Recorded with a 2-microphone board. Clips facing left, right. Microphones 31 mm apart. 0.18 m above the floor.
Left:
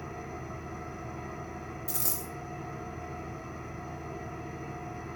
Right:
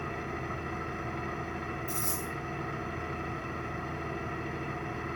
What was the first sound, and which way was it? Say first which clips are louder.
An engine running: right 4 dB; 60° right (ahead or behind).